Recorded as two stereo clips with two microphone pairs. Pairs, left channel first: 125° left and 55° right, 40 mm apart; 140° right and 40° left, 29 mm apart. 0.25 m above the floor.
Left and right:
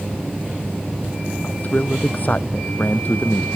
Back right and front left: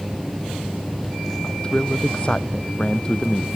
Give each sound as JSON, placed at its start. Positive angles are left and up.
{"t": 1.4, "sound": "a man speaking", "azimuth_deg": 165}